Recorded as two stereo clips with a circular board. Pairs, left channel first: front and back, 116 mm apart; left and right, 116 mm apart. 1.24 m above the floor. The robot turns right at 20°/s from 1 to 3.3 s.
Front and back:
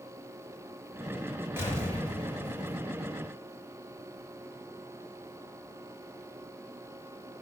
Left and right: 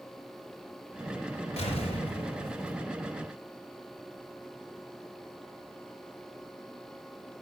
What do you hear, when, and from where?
1.6 s an explosion: 110° left, 3.5 m; by 2.8 s 135° left, 3.5 m